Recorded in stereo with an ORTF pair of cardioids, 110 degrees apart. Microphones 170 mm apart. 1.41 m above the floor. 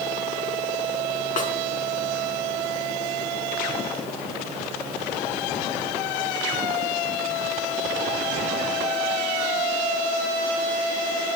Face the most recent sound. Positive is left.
turn(degrees=50)